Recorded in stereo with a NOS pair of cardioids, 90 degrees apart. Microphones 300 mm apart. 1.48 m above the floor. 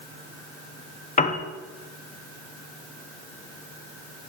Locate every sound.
1.2 s a piano: 25° left, 0.8 m